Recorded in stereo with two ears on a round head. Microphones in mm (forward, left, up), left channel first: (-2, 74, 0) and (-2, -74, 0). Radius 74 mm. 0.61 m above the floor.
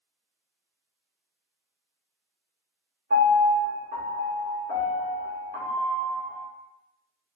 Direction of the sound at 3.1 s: 60° right (ahead or behind).